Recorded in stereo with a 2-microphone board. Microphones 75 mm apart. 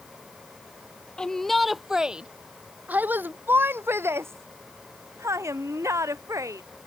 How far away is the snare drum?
I don't hear a snare drum.